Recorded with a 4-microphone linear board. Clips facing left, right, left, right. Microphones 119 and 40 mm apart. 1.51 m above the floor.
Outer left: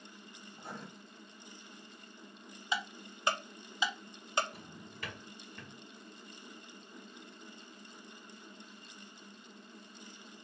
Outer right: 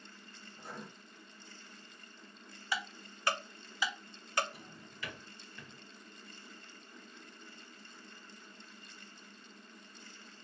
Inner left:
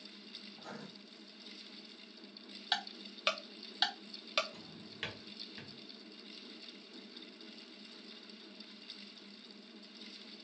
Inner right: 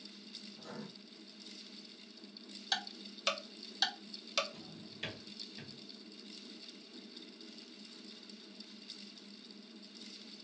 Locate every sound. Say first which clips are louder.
0.5 s writing: outer left 1 dB, inner right 1 dB; 45° left (ahead or behind), 2 m
2.7 s ticking: outer left 2 dB, inner left 1 dB; 20° left (ahead or behind), 0.8 m
4.5 s a drawer: outer left 3 dB, even; 45° left (ahead or behind), 1.8 m